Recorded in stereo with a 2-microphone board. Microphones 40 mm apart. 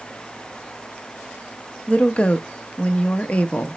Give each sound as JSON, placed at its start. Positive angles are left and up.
{"t": 1.9, "sound": "a woman speaking", "side_deg": 30, "distance_m": 0.5}